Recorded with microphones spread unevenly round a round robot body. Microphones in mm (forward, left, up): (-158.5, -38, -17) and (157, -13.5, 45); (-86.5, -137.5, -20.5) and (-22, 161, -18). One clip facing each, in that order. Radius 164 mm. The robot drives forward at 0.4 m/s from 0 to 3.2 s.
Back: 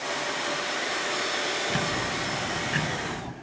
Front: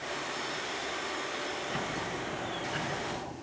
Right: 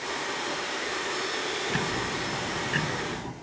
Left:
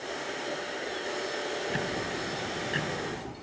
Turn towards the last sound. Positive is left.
turn(degrees=-170)